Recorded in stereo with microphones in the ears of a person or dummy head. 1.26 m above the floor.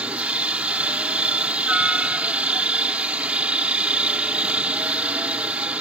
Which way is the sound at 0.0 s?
5° right (ahead or behind).